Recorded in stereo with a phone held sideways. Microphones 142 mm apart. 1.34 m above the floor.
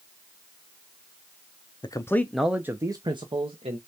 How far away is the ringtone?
No ringtone in this recording.